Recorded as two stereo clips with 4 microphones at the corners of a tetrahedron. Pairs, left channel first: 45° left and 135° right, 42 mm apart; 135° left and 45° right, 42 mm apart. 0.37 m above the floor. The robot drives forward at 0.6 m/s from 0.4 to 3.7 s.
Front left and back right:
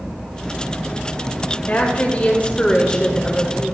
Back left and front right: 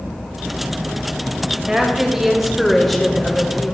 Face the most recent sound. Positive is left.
turn(degrees=110)